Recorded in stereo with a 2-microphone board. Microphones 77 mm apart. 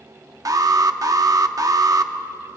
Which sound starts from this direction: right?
An alarm, at 0.5 s.